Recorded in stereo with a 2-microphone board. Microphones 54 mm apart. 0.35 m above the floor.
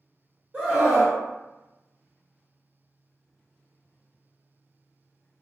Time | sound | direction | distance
0.5 | a scream | 20° right (ahead or behind) | 1.1 m